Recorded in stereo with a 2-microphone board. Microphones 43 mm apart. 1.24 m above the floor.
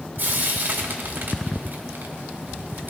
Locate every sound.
0.2 s frying: 60° right (ahead or behind), 1.8 m